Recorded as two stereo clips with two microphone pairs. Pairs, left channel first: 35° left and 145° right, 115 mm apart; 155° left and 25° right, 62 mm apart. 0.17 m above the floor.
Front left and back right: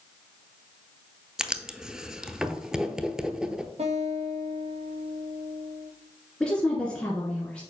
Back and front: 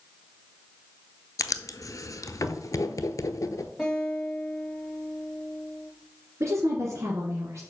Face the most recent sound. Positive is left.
turn(degrees=-45)